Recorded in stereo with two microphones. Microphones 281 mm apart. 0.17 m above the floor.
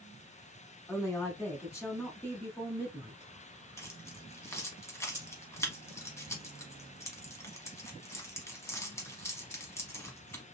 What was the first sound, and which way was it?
A woman speaking, 10° left (ahead or behind).